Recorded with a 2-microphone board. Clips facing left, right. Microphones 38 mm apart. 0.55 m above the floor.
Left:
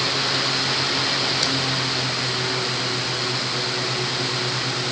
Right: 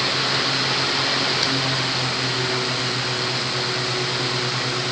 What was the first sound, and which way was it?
Only background noise.